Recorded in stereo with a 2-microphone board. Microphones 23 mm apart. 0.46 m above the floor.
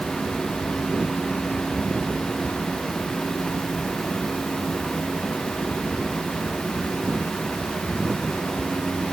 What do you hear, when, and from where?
Only background noise.